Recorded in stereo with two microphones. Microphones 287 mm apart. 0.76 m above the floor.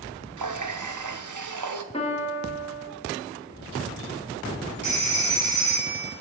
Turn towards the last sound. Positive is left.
turn(degrees=75)  # may be behind; listen again after turning